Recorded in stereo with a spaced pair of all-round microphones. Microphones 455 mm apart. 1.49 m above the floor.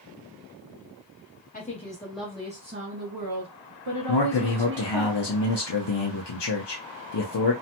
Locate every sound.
1.5 s a woman speaking: 20° left (ahead or behind), 0.9 m; by 5.1 s 90° right, 1.4 m
4.1 s a man speaking: 60° left (ahead or behind), 0.6 m